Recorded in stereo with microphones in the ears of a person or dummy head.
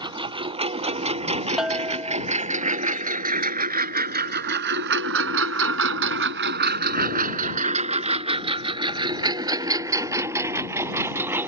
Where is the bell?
5° right (ahead or behind).